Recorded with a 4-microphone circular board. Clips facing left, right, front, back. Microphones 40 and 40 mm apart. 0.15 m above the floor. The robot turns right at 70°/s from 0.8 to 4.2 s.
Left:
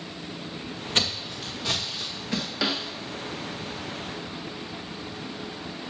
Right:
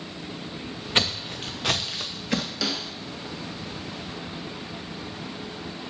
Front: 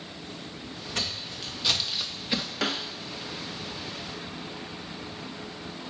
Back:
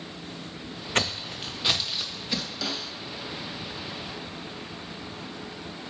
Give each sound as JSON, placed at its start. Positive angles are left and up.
{"t": 0.9, "sound": "footsteps", "azimuth_deg": -155, "distance_m": 0.5}
{"t": 2.6, "sound": "a snare drum", "azimuth_deg": 25, "distance_m": 0.5}